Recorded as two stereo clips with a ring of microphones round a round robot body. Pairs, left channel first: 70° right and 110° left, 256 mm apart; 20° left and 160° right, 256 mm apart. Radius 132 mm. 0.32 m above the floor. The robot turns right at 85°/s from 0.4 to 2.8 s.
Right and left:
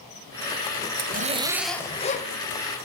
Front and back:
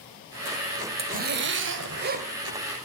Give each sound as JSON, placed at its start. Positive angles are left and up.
{"t": 1.0, "sound": "a zipper", "azimuth_deg": 145, "distance_m": 1.7}